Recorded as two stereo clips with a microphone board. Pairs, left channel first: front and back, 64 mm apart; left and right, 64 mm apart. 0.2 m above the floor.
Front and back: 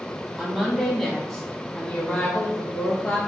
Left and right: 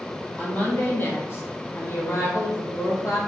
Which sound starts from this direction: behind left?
A woman speaking, at 0.4 s.